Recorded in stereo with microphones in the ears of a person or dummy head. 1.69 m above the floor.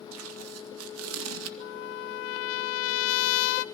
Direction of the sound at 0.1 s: 80° right.